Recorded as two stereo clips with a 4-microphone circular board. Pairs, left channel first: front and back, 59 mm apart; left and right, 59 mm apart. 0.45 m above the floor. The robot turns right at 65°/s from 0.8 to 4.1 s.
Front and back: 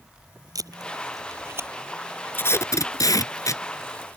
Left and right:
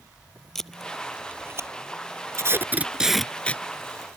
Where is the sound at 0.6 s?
175° left; by 1.7 s 125° right.